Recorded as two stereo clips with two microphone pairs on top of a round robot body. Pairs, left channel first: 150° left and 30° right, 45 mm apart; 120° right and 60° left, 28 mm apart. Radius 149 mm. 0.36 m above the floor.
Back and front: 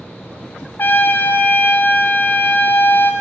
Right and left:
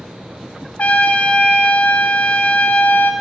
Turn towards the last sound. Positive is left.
turn(degrees=-165)